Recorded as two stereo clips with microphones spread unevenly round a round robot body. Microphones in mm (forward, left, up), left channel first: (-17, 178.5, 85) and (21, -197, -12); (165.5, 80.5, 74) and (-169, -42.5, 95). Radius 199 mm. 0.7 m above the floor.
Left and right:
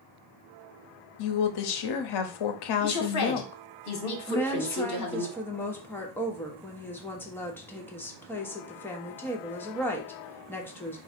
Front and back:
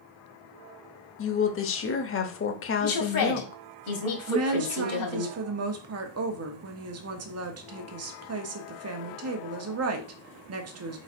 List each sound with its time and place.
1.2 s a woman speaking: 65° left, 0.9 m
2.8 s a woman speaking: 45° left, 1.9 m
4.3 s a woman speaking: 160° right, 0.9 m